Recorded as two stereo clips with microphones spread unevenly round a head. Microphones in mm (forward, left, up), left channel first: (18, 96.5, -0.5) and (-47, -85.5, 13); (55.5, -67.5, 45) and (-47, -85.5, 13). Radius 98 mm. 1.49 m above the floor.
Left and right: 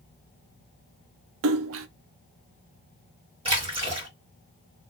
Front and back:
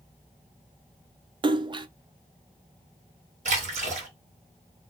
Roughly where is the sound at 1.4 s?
Behind right.